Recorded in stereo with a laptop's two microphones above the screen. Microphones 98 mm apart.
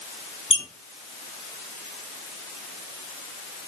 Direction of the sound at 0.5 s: 60° left (ahead or behind).